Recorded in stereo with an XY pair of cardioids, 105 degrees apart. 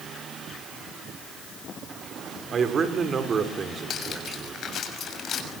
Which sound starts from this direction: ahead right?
A man speaking, at 2.5 s.